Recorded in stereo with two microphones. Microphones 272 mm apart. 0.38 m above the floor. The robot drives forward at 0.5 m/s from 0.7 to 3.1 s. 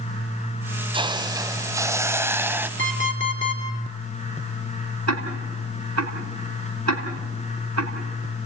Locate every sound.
0.9 s a hiss: 20° right (ahead or behind), 0.5 m; by 2.7 s 5° right (ahead or behind), 1.3 m
2.8 s an alarm clock: 45° left (ahead or behind), 3 m
5.1 s ticking: 70° right (ahead or behind), 3 m